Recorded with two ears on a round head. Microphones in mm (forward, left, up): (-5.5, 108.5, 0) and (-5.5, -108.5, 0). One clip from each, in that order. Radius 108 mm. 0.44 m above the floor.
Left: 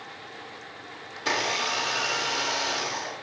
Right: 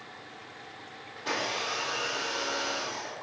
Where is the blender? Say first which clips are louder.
Left 5 dB; 40° left (ahead or behind), 0.6 m.